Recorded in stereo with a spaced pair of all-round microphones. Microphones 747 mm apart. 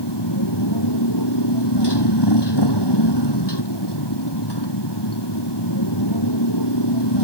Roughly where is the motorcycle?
Left.